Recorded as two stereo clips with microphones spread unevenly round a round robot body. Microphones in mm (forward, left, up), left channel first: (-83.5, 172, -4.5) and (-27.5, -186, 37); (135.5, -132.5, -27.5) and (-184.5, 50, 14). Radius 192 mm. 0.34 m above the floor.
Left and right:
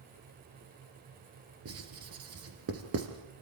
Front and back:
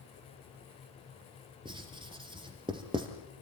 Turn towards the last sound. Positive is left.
turn(degrees=-130)